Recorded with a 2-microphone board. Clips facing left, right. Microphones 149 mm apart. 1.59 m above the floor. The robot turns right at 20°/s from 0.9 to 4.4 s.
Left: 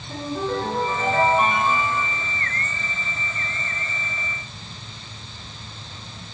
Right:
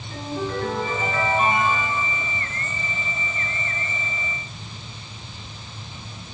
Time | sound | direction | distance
0.1 | a ringtone | 70° left (ahead or behind) | 10 m